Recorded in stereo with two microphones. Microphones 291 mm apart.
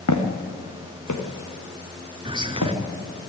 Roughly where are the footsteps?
Left.